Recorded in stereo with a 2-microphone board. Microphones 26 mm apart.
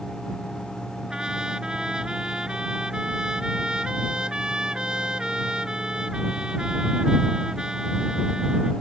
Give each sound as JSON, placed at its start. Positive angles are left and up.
{"t": 1.1, "sound": "a trumpet", "side_deg": -30}